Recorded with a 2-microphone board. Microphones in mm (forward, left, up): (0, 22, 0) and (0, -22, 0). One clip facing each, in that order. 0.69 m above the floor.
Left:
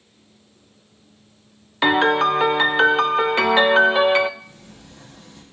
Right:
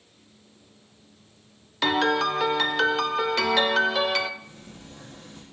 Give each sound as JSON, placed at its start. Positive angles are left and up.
{"t": 1.8, "sound": "a piano", "side_deg": 25, "distance_m": 0.5}
{"t": 4.4, "sound": "a sliding door", "side_deg": -40, "distance_m": 5.5}